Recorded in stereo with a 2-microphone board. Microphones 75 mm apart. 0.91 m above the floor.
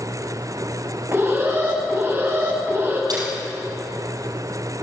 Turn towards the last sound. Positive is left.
turn(degrees=-60)  # may be behind; listen again after turning